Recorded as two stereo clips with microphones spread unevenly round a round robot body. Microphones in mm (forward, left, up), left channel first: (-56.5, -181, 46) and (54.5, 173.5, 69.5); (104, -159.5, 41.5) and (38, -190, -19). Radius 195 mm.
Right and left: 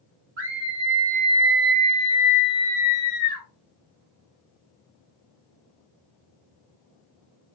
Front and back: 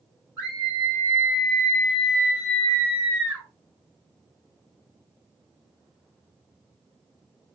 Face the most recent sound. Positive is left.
turn(degrees=-100)